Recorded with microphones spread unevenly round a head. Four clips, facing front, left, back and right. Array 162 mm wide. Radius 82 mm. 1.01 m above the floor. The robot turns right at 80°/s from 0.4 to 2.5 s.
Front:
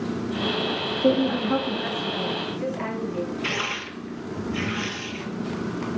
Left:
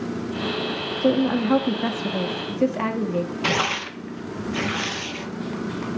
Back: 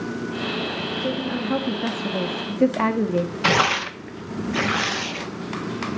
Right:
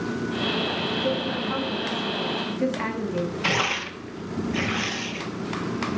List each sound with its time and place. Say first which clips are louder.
1.0 s a woman speaking: left 11 dB, front 7 dB; 50° left, 1.5 m; by 3.3 s 165° left, 1.5 m
3.4 s tearing paper: left 2 dB, back 9 dB; 175° left, 1.0 m